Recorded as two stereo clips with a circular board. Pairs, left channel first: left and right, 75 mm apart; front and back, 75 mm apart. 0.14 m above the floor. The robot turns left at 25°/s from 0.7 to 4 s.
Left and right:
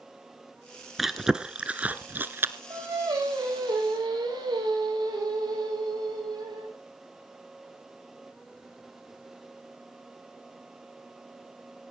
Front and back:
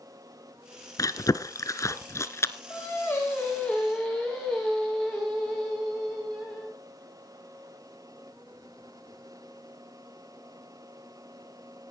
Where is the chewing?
5° right, 0.8 m; by 2.5 s 45° right, 0.8 m.